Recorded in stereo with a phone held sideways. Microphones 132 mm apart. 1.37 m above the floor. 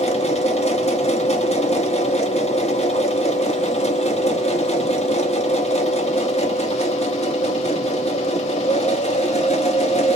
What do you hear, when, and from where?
0.0 s a machine running: 50° left (ahead or behind), 1.1 m